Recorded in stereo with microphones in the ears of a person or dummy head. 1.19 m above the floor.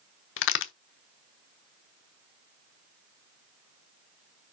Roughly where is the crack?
Left.